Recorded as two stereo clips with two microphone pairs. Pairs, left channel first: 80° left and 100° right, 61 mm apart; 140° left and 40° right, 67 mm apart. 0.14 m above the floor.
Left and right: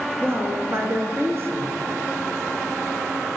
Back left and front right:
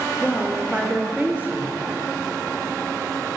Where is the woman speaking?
100° right, 1.6 m.